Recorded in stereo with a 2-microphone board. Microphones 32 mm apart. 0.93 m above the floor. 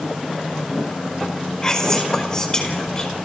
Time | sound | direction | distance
1.6 | whispering | 25° left (ahead or behind) | 4.5 m